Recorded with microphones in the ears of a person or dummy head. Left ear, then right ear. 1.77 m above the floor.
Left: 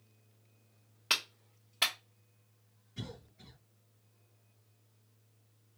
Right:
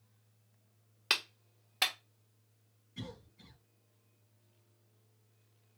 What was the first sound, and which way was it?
A clap, 20° right (ahead or behind).